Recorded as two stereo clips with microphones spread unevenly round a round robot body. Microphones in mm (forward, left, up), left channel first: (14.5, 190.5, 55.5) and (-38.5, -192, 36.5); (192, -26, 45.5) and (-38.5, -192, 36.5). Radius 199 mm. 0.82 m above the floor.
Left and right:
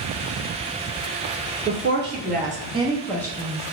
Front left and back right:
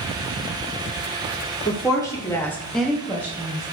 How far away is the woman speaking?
About 1.6 m.